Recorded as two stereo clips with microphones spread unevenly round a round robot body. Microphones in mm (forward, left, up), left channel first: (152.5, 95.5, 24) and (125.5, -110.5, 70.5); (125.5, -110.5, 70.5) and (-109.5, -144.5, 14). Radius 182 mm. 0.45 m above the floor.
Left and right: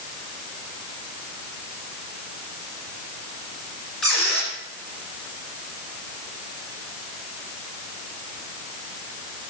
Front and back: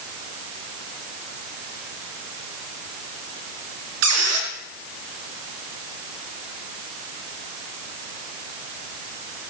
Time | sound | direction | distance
4.0 | a squeak | 170° left | 2.5 m